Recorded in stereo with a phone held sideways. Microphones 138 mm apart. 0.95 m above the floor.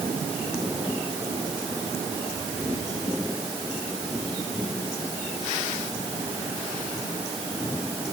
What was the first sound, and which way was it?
Only background noise.